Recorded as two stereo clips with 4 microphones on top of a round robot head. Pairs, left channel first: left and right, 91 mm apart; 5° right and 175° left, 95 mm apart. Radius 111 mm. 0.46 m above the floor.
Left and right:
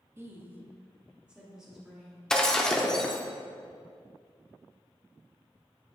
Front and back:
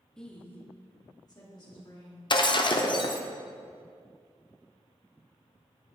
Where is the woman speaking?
80° right, 1.3 m; by 2.2 s 5° right, 2 m.